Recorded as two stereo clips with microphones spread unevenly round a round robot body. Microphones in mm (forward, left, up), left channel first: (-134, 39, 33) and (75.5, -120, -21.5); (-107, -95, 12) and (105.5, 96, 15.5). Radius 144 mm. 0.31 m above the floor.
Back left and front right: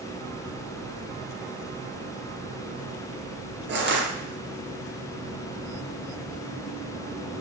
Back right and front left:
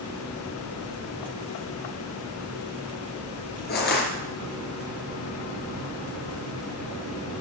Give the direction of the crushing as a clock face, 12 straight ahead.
3 o'clock.